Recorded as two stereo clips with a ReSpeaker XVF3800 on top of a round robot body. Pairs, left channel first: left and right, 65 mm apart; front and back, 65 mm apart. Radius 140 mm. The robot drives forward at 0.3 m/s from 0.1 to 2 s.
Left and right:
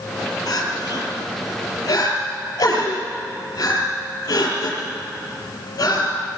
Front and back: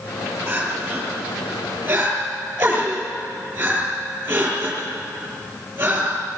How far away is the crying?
About 4.5 m.